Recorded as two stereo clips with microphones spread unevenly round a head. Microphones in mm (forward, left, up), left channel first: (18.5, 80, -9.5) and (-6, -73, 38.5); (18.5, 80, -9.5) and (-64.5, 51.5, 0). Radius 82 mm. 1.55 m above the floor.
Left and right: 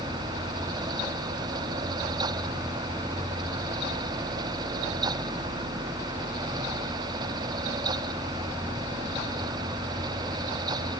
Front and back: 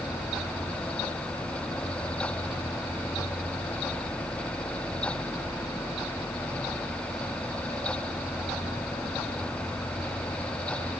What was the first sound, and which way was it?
Only background noise.